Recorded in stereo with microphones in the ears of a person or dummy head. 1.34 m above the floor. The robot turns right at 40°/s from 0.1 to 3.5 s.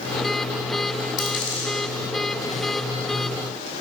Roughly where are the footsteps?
No footsteps in this recording.